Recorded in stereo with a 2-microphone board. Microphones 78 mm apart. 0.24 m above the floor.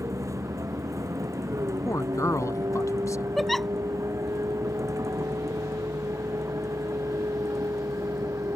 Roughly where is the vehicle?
Right.